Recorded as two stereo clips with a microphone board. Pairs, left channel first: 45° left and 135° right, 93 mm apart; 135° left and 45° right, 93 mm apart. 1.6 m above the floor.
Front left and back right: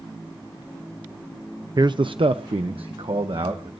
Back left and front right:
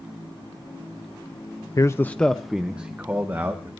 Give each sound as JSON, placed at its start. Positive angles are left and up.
{"t": 1.8, "sound": "a man speaking", "azimuth_deg": -175, "distance_m": 0.6}